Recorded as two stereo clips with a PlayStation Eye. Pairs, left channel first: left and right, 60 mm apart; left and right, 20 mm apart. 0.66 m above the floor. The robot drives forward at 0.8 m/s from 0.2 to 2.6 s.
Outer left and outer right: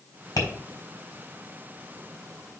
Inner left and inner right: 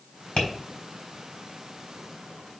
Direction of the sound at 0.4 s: 80° left.